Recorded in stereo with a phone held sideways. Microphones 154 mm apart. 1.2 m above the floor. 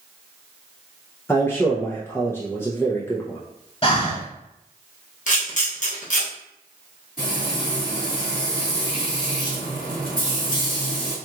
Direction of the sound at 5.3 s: 55° left (ahead or behind).